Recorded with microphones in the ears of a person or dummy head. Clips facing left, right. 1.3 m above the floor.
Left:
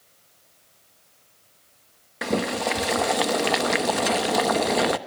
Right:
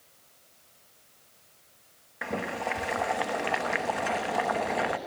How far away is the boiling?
About 0.9 m.